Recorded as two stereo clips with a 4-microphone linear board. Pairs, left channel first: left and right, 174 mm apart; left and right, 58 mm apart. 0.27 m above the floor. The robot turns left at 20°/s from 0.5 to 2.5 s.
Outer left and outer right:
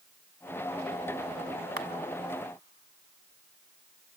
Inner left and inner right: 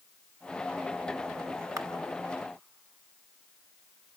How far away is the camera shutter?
About 0.9 m.